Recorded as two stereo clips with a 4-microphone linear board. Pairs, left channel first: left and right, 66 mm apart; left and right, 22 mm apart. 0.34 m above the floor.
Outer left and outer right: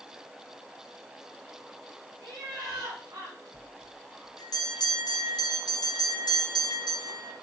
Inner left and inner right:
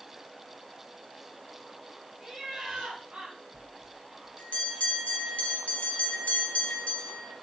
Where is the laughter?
55° right (ahead or behind), 1.9 m; by 3.4 s 70° right (ahead or behind), 3.5 m.